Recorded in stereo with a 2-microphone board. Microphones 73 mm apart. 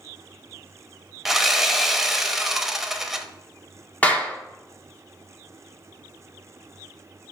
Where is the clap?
20° left (ahead or behind), 1.3 m.